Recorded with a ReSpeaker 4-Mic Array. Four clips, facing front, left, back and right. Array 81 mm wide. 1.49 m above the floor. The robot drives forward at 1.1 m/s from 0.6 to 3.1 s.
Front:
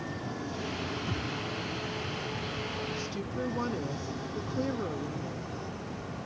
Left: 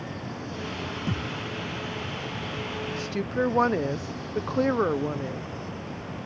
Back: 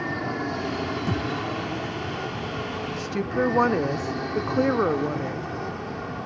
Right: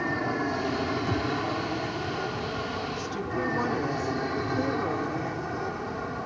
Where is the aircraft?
130° right.